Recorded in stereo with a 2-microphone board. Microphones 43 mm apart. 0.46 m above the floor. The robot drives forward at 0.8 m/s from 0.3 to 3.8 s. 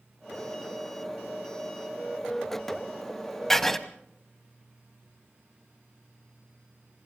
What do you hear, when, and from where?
3.5 s writing: 10° left (ahead or behind), 1.0 m